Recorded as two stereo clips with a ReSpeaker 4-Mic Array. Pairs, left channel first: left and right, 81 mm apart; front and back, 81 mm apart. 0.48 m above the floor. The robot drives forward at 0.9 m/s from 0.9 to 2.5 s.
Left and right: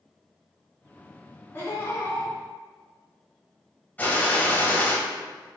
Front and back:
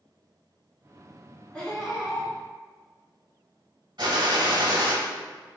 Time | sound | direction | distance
1.5 | laughter | 65° left | 1.4 m
4.0 | a gunshot | 160° left | 0.8 m